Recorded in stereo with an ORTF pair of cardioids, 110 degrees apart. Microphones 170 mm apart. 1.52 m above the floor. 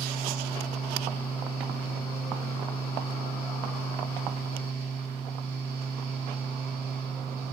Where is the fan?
65° right, 1.8 m.